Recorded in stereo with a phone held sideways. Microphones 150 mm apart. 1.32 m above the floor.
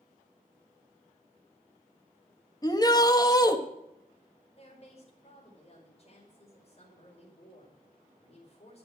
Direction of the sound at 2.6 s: 25° left (ahead or behind).